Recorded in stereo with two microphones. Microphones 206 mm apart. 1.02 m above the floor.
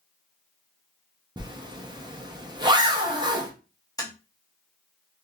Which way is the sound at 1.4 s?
20° right (ahead or behind).